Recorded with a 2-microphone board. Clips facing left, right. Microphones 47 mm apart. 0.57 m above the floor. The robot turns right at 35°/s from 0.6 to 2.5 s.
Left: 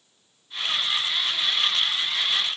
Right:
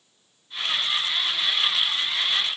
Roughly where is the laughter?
No laughter in this recording.